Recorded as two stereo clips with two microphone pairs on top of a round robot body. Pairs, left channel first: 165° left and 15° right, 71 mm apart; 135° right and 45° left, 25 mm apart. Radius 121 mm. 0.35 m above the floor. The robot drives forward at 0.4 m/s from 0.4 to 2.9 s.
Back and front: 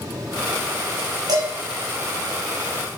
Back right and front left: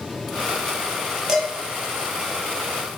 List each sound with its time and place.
1.3 s dishes clattering: 25° right, 1.5 m